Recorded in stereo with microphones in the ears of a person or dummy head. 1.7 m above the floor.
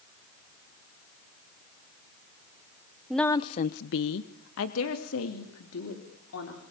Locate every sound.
3.1 s a woman speaking: 5° right (ahead or behind), 0.8 m; by 6.6 s 75° left (ahead or behind), 4 m